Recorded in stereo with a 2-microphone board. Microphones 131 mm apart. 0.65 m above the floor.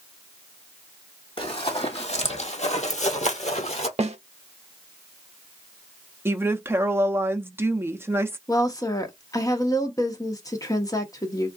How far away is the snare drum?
About 0.6 m.